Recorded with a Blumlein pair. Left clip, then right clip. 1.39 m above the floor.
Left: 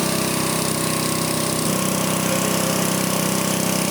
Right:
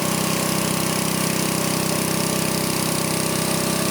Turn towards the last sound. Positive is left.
No sound to turn to.